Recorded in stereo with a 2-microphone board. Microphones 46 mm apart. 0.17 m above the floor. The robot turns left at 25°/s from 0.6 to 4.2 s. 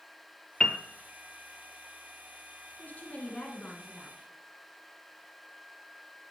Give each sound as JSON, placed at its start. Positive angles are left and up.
{"t": 0.6, "sound": "a piano", "side_deg": 20, "distance_m": 0.6}
{"t": 2.8, "sound": "a woman speaking", "azimuth_deg": 60, "distance_m": 1.5}